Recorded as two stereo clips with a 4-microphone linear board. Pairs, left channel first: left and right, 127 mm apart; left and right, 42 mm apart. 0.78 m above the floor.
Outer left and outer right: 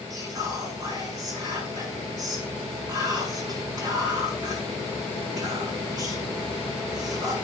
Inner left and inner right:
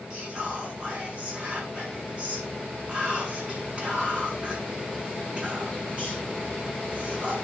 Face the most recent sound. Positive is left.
turn(degrees=-30)  # may be behind; listen again after turning